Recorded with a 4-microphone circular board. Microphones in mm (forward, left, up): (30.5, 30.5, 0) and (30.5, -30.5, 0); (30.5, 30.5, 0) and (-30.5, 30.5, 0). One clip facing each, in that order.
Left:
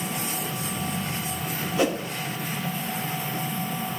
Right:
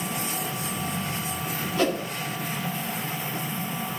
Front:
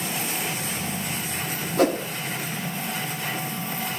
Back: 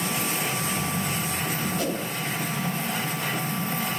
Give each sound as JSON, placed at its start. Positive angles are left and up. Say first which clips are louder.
{"t": 1.8, "sound": "a whoosh", "louder": "even, front 7 dB", "azimuth_deg": 20, "distance_m": 1.0}